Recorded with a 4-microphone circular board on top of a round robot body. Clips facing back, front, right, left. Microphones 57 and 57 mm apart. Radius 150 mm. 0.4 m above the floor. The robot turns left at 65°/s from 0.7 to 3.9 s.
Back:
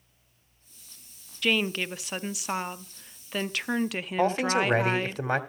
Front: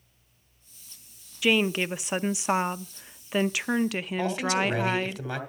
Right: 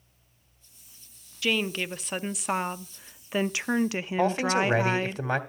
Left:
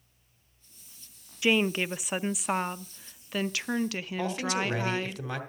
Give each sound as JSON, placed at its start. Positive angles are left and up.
{"t": 1.4, "sound": "a woman speaking", "azimuth_deg": 70, "distance_m": 1.0}
{"t": 4.2, "sound": "a man speaking", "azimuth_deg": -140, "distance_m": 2.5}